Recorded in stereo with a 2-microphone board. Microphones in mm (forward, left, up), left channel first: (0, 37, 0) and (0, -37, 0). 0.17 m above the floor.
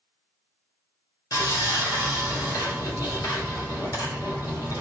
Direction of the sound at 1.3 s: 55° left (ahead or behind).